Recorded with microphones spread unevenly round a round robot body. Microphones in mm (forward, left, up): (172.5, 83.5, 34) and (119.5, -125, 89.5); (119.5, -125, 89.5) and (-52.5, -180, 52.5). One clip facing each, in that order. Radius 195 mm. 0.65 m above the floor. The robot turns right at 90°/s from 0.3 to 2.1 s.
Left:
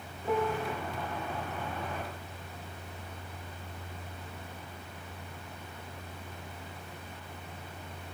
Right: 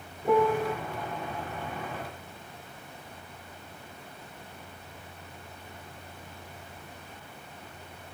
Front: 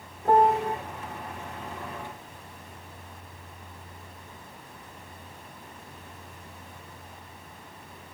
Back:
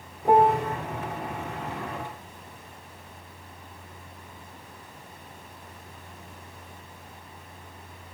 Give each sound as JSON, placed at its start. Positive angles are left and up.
{"t": 0.2, "sound": "a piano", "azimuth_deg": -105, "distance_m": 0.6}